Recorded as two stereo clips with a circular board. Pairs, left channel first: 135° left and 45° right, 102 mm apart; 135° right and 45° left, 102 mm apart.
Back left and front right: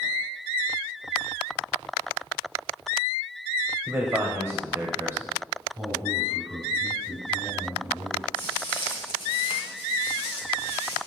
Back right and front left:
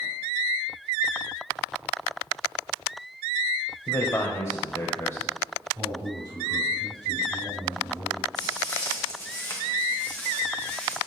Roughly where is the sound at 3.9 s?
Right.